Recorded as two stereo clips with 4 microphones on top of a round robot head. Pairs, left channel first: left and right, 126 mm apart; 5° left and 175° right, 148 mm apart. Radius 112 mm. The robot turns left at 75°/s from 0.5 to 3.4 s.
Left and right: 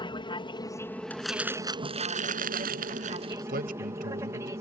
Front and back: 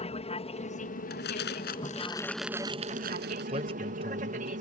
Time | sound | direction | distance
0.0 | an aircraft | 45° left | ?
1.1 | crumpling | 15° left | ?
3.5 | a man speaking | 110° right | ?